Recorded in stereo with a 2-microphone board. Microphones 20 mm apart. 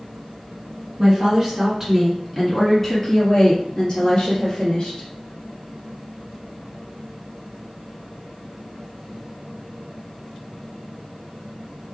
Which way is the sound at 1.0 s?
35° right (ahead or behind).